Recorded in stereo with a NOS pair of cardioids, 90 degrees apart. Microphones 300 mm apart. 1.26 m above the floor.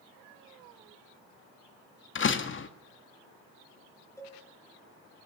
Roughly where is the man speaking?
No man speaking in this recording.